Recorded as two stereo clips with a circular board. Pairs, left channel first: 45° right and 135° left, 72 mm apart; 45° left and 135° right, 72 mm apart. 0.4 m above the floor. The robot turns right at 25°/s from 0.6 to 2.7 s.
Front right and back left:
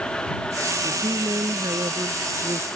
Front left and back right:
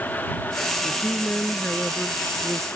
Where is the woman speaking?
105° left; by 2.7 s 150° left.